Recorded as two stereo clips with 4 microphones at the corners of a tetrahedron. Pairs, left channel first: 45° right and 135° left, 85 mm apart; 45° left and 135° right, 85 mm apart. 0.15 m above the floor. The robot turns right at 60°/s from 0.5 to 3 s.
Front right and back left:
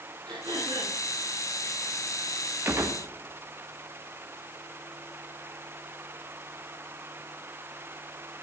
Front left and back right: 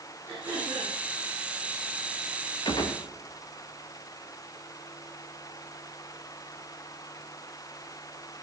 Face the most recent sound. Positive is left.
turn(degrees=90)